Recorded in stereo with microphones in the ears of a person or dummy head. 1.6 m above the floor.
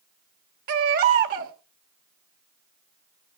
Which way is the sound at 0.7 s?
45° right (ahead or behind).